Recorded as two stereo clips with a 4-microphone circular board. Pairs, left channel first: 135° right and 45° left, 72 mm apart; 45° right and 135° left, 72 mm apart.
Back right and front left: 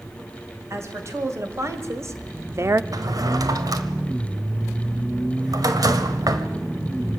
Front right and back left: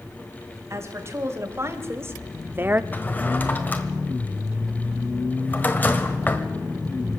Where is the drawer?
20° left, 1.5 m.